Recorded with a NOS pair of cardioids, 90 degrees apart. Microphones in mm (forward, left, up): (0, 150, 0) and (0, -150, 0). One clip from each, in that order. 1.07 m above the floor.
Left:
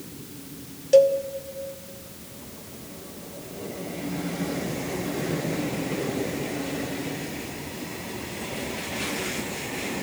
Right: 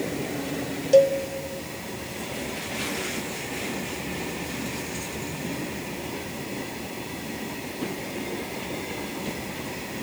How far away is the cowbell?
About 1.1 m.